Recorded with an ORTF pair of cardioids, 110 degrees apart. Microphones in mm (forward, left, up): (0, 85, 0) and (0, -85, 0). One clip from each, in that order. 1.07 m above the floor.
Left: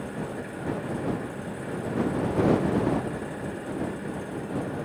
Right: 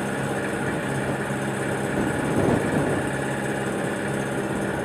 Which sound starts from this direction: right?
An engine running, at 0.0 s.